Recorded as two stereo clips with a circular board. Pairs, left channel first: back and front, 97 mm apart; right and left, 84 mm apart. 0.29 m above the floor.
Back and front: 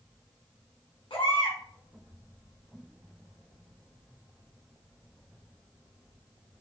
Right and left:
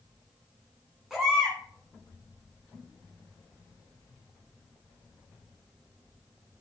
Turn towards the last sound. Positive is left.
turn(degrees=175)